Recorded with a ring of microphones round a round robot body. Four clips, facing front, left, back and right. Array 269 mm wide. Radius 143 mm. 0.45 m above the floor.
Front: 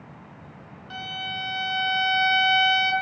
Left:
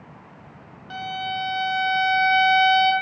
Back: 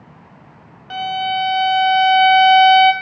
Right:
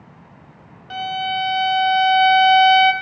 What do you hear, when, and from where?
0.9 s a violin: 160° right, 1.2 m